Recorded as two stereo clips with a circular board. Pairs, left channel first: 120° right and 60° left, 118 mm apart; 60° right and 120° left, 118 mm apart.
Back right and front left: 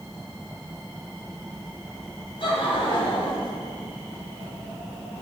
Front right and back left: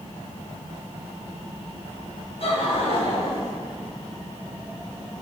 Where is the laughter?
85° right, 3 m; by 3.5 s 80° right, 1.7 m.